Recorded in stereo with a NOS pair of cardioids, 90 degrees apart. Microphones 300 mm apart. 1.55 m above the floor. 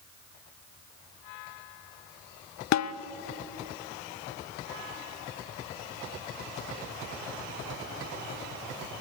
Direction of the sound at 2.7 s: 65° left.